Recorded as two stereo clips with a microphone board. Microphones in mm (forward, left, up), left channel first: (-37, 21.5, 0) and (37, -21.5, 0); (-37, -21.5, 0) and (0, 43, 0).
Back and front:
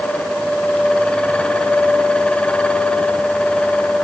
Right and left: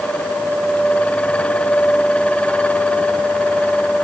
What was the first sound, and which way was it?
Only background noise.